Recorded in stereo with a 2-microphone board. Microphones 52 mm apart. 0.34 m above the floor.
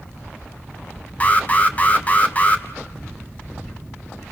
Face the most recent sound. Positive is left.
turn(degrees=30)  # may be behind; listen again after turning